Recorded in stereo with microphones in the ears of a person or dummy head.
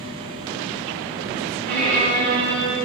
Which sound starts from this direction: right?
A violin, at 1.7 s.